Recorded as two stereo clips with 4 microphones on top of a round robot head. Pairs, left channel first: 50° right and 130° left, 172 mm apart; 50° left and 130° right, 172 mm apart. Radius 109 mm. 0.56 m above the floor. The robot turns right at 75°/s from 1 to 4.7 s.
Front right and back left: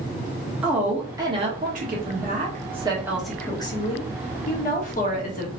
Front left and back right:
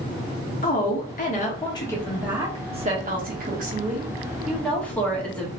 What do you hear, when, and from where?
0.6 s a woman speaking: 50° left, 1.5 m; by 5.5 s 30° right, 1.5 m